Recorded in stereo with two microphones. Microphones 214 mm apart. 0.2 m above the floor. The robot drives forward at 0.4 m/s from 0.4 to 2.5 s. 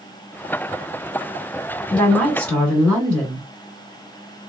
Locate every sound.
1.9 s a woman speaking: 5° left (ahead or behind), 2.5 m